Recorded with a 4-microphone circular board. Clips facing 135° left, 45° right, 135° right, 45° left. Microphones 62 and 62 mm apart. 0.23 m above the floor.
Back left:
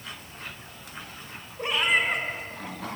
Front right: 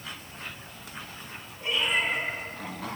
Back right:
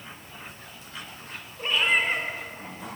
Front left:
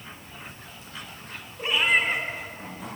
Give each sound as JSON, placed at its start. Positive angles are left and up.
{"t": 1.6, "sound": "a cat meowing", "azimuth_deg": 130, "distance_m": 1.1}